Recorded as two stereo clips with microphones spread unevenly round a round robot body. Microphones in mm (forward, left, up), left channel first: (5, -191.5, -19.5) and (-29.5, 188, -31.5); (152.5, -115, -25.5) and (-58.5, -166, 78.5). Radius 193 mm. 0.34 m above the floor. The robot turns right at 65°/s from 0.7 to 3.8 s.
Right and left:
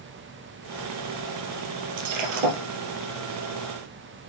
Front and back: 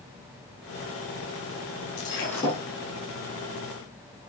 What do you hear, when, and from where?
2.0 s breaking glass: 60° left, 2 m; by 2.6 s 105° left, 2 m